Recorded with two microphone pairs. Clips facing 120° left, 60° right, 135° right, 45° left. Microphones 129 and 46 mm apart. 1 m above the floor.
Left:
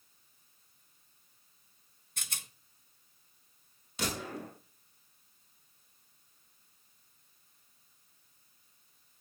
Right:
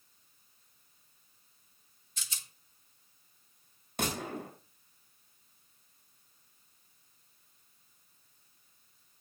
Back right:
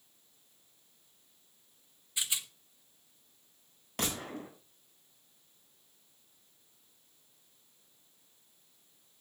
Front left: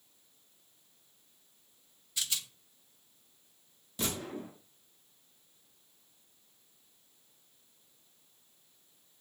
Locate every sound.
2.2 s a rattle: 155° left, 0.9 m
4.0 s a gunshot: 100° right, 6.5 m